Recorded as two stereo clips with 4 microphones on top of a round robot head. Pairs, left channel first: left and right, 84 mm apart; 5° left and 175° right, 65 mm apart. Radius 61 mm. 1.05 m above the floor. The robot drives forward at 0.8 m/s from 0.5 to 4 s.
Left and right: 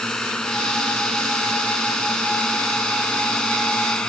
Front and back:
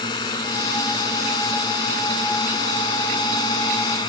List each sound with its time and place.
0.0 s a drone: 10° left